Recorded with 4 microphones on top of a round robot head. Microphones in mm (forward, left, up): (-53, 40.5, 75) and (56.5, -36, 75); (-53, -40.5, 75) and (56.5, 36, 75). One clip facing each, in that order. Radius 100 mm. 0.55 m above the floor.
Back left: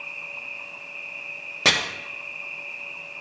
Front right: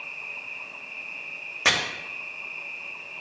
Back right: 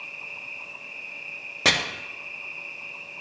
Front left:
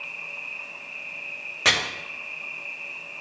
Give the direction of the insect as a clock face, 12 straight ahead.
3 o'clock.